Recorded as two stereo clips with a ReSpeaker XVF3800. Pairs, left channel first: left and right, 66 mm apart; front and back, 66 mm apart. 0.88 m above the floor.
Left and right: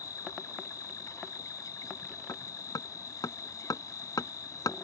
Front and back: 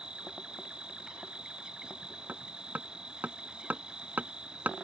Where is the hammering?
115° left.